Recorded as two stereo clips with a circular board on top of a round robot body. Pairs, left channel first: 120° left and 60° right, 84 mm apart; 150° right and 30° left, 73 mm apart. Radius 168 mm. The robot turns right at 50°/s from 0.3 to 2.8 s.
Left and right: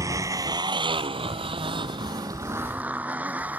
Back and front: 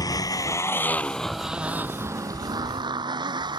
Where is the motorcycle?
115° right; by 3.6 s 10° left.